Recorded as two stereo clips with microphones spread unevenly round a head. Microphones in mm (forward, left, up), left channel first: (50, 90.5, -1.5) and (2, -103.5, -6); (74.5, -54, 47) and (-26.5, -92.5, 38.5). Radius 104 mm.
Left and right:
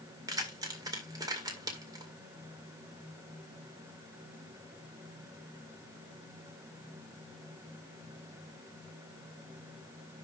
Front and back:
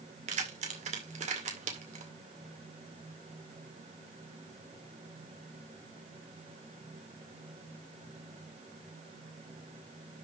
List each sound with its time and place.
0.3 s keys jangling: 175° right, 2.0 m